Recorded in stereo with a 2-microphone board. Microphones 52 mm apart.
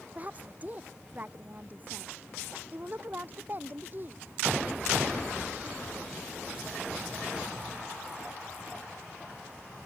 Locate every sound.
0.1 s a woman speaking: 30° right (ahead or behind); by 4.2 s 40° right (ahead or behind)